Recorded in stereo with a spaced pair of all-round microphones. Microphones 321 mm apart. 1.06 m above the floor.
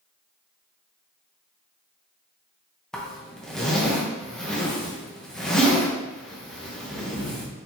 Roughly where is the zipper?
Centre.